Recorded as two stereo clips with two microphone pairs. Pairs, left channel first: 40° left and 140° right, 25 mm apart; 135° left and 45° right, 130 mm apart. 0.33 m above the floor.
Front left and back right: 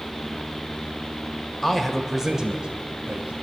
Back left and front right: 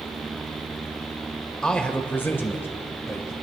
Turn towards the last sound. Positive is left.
turn(degrees=-155)